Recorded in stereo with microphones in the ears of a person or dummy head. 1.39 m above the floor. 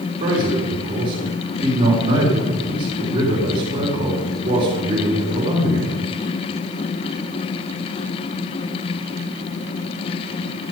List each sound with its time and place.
0.2 s a man speaking: 35° right (ahead or behind), 4 m